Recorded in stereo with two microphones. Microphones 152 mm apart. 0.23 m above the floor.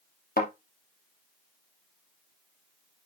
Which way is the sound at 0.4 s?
80° left.